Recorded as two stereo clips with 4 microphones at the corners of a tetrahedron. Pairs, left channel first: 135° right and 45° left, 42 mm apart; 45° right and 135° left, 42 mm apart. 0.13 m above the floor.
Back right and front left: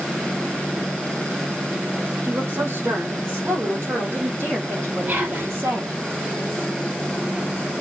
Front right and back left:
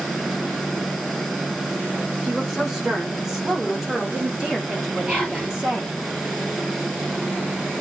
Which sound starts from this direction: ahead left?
A woman speaking, at 2.2 s.